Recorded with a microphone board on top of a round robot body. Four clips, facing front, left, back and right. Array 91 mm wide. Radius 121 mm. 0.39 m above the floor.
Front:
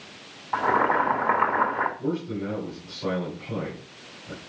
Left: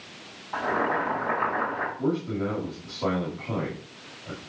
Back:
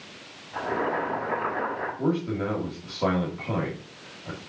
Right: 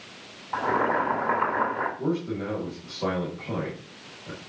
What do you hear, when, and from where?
0.5 s boiling: 15° right, 3 m
2.0 s a man speaking: 170° right, 3 m